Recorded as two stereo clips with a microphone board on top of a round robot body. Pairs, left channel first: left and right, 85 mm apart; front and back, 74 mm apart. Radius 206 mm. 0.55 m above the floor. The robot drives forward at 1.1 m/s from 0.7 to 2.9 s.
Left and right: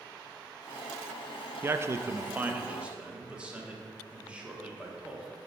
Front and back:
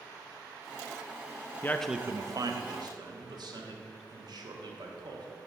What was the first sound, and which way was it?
A man speaking, 45° right.